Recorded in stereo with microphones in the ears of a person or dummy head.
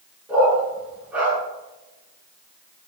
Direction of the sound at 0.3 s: 5° right (ahead or behind).